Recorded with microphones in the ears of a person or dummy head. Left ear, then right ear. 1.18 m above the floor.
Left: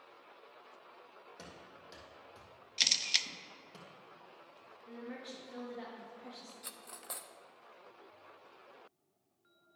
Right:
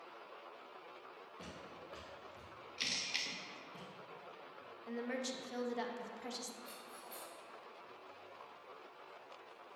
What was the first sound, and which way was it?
Running footsteps, 65° left (ahead or behind).